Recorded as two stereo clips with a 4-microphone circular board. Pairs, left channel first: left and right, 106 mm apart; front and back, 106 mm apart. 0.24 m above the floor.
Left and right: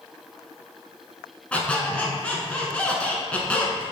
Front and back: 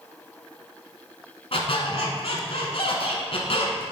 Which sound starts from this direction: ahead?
A squeak, at 1.5 s.